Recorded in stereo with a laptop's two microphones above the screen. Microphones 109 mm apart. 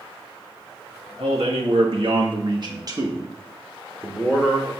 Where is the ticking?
I don't hear ticking.